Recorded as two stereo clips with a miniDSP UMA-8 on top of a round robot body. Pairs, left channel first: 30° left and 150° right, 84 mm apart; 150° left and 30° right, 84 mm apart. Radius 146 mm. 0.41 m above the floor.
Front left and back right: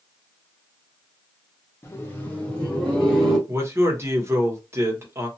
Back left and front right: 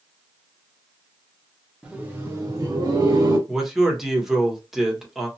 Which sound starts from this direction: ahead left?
Laughter, at 1.8 s.